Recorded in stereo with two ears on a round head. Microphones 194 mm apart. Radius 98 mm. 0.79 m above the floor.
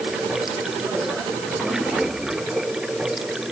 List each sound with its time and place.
0.0 s running water: 5° right (ahead or behind)